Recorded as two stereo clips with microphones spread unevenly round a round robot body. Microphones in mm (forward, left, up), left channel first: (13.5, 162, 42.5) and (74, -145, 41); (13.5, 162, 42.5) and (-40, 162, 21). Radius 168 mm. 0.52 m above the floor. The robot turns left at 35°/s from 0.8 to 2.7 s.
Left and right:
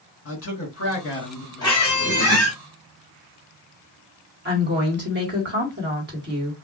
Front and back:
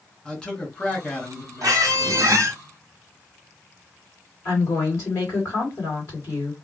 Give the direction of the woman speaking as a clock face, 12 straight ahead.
1 o'clock.